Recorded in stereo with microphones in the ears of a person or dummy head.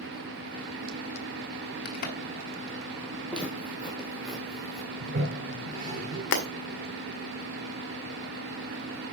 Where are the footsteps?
5° left (ahead or behind), 3.5 m; by 4.9 s centre (ahead or behind), 4.5 m.